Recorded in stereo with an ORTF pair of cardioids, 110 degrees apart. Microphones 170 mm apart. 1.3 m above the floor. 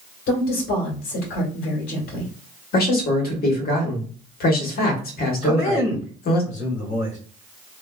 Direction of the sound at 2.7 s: 65° left.